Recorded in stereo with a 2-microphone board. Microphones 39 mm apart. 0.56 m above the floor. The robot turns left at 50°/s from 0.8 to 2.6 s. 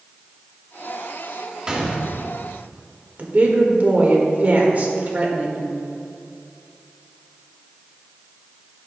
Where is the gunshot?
145° right, 1.1 m; by 2.4 s 175° right, 1.1 m.